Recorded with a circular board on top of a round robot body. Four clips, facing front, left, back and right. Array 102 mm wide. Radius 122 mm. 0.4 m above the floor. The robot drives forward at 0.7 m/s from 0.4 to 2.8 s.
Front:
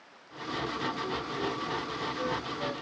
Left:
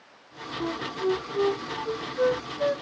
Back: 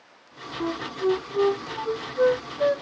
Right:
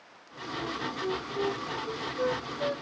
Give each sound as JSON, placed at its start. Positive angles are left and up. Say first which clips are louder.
{"t": 0.6, "sound": "a flute", "louder": "left 6 dB, back 9 dB", "azimuth_deg": 160}